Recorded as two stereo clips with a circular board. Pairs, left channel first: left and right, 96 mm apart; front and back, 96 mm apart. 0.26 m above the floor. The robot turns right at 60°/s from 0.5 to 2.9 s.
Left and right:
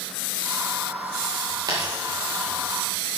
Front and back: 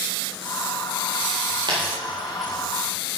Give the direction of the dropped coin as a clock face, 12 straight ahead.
5 o'clock.